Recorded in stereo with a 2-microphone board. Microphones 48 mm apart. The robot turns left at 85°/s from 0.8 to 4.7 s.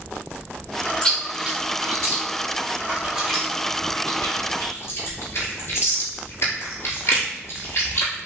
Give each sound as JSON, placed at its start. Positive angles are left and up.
{"t": 1.0, "sound": "chewing", "side_deg": 15, "distance_m": 1.3}